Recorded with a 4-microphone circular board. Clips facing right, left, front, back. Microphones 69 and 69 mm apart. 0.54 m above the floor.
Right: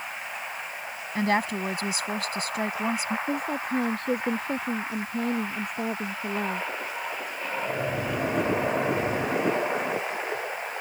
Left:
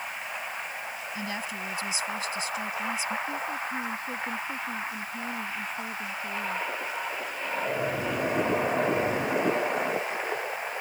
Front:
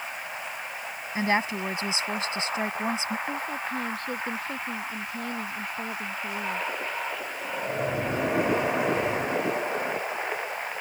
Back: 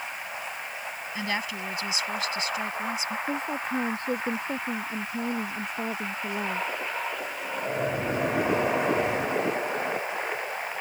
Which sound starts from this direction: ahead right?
A woman speaking, at 1.1 s.